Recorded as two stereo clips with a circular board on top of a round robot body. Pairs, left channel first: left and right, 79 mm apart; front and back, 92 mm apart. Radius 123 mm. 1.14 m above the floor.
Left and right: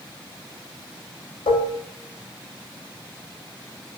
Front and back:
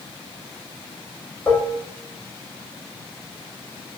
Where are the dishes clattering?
80° left, 1.4 m.